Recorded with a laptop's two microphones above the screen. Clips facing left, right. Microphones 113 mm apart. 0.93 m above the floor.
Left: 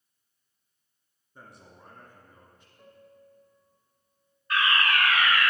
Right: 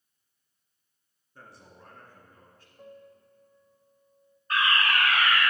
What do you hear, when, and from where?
1.4 s a man speaking: 5° left (ahead or behind), 1.4 m
2.8 s a piano: 30° right (ahead or behind), 0.5 m
4.5 s a fire alarm: 35° right (ahead or behind), 1.6 m